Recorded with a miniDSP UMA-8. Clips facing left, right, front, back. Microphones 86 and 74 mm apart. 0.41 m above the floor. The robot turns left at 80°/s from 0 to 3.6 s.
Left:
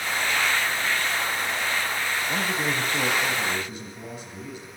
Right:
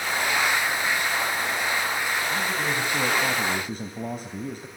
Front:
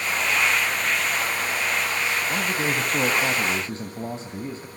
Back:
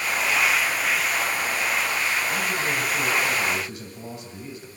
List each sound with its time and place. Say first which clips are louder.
2.3 s a man speaking: even, front 1 dB; 50° left, 2 m; by 4.7 s 55° right, 2 m